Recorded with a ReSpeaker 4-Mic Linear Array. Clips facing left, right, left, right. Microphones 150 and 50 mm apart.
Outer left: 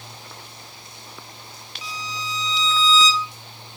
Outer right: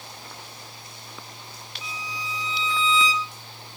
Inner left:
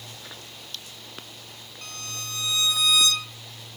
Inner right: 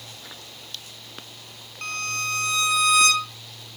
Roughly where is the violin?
Right.